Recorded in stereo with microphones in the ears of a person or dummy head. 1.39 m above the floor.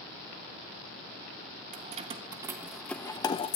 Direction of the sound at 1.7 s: 40° right (ahead or behind).